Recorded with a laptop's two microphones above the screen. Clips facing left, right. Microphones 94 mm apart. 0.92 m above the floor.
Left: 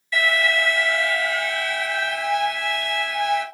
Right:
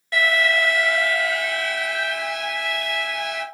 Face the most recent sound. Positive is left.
turn(degrees=-70)  # may be behind; listen again after turning